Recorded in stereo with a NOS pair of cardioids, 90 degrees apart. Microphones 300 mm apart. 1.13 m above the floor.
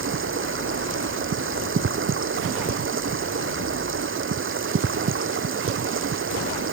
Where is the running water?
40° right.